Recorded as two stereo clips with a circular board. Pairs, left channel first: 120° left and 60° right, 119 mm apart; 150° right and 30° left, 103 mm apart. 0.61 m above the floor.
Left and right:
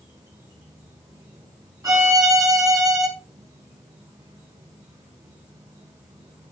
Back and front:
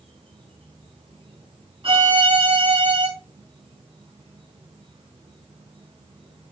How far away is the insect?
About 5 m.